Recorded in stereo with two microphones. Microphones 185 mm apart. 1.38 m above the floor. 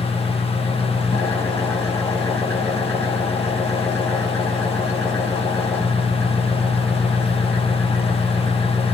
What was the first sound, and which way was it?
An engine running, 15° left (ahead or behind).